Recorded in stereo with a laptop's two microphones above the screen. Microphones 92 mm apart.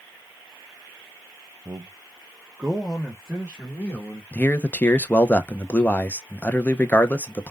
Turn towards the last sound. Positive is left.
turn(degrees=20)  # may be behind; listen again after turning